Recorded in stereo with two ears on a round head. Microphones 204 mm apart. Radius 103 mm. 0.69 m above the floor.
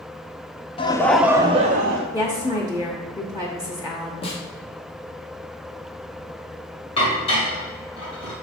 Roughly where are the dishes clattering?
Left.